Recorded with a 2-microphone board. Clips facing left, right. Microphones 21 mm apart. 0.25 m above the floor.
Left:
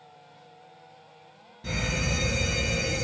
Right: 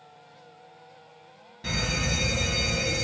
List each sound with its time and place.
1.6 s a fire alarm: 40° right (ahead or behind), 3 m